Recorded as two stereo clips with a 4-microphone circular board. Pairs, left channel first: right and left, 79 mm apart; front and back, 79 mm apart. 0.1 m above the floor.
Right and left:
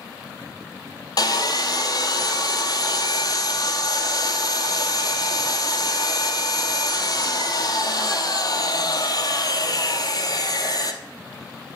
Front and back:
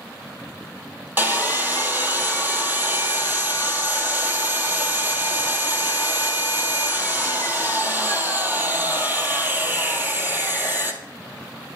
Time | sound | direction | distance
1.2 | sawing | 115° right | 1.0 m